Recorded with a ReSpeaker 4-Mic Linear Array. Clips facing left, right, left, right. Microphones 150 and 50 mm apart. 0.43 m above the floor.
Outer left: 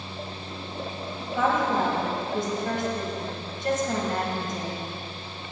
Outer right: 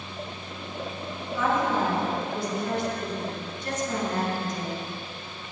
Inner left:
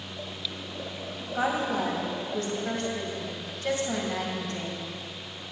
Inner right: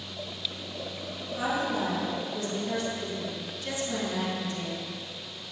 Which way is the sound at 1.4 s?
55° left (ahead or behind).